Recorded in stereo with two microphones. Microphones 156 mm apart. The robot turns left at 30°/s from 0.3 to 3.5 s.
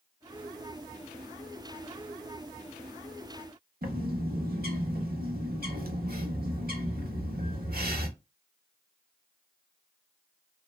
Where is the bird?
70° right (ahead or behind), 0.7 m.